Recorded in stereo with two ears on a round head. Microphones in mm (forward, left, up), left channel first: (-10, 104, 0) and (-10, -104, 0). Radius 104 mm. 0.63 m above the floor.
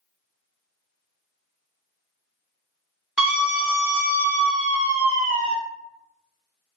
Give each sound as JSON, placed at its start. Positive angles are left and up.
{"t": 3.2, "sound": "a scream", "side_deg": -5, "distance_m": 1.3}